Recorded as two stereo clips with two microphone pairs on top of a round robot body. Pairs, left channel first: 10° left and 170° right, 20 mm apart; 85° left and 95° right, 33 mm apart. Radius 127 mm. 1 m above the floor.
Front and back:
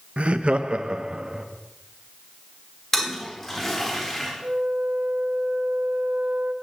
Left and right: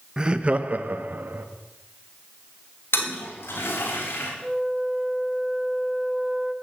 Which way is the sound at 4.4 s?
175° right.